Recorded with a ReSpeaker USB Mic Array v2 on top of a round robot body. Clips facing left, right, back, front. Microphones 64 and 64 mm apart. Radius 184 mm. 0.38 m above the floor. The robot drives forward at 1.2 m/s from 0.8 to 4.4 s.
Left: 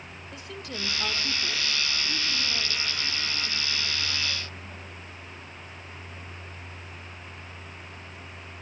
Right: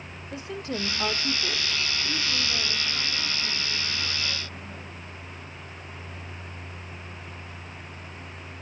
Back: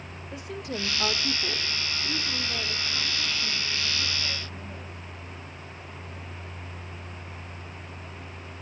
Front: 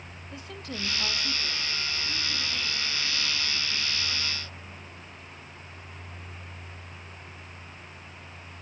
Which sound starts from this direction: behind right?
A woman speaking, at 0.3 s.